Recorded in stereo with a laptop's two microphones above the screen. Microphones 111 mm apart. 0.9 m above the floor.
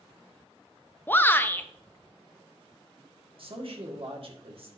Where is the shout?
20° left (ahead or behind), 0.5 m.